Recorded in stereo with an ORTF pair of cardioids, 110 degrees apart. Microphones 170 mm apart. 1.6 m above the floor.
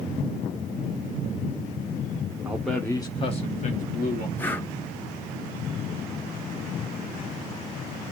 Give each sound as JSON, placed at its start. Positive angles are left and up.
{"t": 2.5, "sound": "a man speaking", "azimuth_deg": -15, "distance_m": 0.5}
{"t": 4.4, "sound": "breathing", "azimuth_deg": 10, "distance_m": 0.7}